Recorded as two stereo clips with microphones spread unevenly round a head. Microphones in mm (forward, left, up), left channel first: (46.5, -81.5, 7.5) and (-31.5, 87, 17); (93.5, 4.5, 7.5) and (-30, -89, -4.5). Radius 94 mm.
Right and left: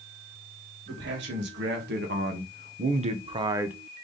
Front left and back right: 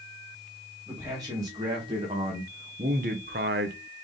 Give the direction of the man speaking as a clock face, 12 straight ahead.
7 o'clock.